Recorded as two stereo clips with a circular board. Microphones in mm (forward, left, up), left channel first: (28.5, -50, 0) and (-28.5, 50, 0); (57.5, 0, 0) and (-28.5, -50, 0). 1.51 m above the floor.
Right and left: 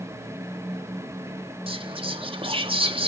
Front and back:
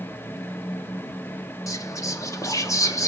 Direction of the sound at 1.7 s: 85° left.